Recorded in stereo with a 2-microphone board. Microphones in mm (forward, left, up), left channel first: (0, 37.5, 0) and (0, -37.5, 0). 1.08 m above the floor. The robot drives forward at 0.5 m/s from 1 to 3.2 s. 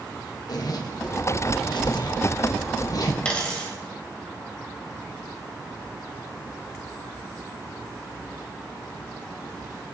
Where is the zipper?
60° left (ahead or behind), 1.0 m; by 3.1 s 50° left (ahead or behind), 1.1 m.